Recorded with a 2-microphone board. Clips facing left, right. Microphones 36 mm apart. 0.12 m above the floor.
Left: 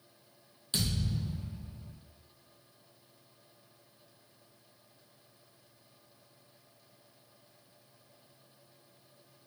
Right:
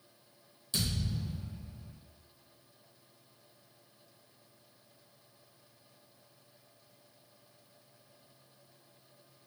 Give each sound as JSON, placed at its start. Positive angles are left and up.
{"t": 0.7, "sound": "a thud", "side_deg": 50, "distance_m": 1.3}